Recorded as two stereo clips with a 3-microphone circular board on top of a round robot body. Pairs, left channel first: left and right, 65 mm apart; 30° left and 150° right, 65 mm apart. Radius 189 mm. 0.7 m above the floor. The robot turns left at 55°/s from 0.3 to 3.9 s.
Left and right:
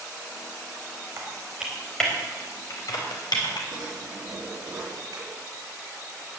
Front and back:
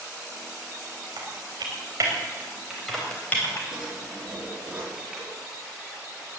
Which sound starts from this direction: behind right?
Typing on a keyboard, at 1.2 s.